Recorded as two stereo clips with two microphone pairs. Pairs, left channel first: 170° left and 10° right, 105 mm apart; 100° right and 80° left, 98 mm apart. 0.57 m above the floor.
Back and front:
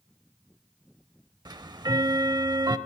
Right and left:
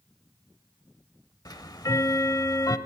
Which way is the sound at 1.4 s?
55° right.